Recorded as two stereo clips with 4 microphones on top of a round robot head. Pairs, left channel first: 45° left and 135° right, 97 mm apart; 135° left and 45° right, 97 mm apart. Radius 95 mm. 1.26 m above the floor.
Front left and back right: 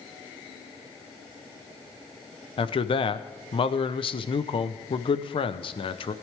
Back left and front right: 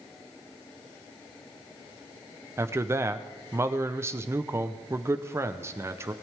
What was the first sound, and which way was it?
A man speaking, 20° left.